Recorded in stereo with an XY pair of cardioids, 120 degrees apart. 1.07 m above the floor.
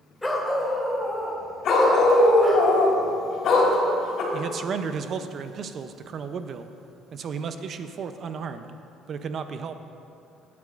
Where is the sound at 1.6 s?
60° left, 3 m.